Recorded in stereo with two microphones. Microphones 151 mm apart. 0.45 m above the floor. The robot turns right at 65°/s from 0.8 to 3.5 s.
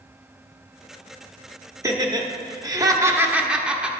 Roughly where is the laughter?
Right.